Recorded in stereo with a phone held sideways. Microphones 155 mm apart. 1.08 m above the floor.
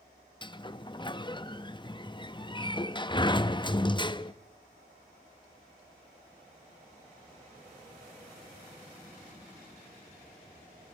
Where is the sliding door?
30° left (ahead or behind), 0.6 m.